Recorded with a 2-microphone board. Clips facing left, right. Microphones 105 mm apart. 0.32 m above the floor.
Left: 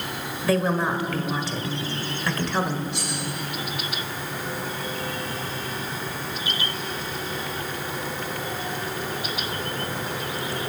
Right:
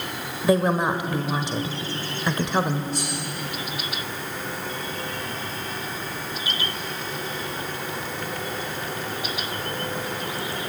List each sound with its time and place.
0.4 s a woman speaking: 15° right (ahead or behind), 1.4 m
2.9 s cutlery clinking: 40° right (ahead or behind), 9.5 m